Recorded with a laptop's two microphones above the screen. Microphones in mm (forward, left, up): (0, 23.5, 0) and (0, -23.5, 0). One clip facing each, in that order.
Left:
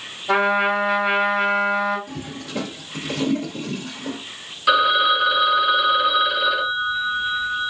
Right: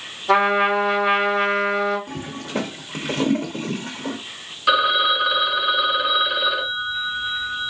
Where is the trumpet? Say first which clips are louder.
Right 1 dB; 10° right (ahead or behind), 1.9 m.